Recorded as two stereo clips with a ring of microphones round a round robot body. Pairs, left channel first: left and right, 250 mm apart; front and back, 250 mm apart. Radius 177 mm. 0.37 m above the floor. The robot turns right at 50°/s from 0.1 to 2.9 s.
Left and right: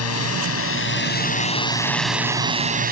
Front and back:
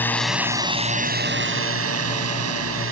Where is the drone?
80° left; by 2.9 s 140° right.